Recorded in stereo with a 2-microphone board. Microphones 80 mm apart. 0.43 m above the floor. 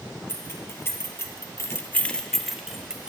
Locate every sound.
0.3 s keys jangling: 30° left (ahead or behind), 2.5 m; by 3.1 s 10° right (ahead or behind), 1.9 m